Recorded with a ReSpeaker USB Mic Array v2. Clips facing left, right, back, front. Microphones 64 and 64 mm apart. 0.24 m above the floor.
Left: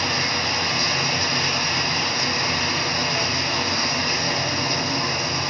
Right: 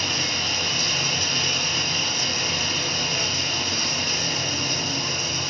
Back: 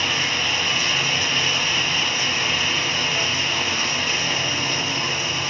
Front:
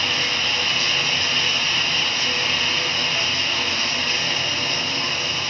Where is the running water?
100° left, 1.3 m.